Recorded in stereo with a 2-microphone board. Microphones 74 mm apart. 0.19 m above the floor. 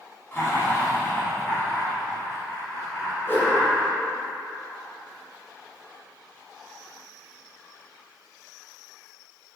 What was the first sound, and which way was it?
Laughter, 30° left (ahead or behind).